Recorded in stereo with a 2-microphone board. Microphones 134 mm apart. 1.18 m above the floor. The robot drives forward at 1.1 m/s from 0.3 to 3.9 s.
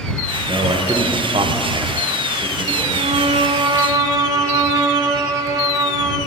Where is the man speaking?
30° right (ahead or behind), 1.3 m; by 2.9 s 20° right (ahead or behind), 1.9 m.